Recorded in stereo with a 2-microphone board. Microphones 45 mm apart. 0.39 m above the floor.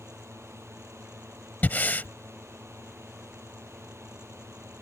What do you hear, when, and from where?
0.0 s a drone: 85° right
1.6 s breathing: 40° left (ahead or behind)